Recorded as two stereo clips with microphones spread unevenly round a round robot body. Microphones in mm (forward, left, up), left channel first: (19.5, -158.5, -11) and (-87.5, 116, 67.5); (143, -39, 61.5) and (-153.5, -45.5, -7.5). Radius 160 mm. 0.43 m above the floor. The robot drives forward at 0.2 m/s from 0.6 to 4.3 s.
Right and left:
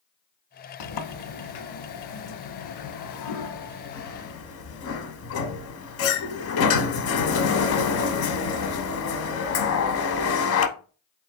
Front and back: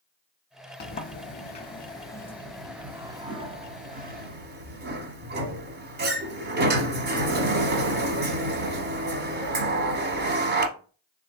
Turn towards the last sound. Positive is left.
turn(degrees=-115)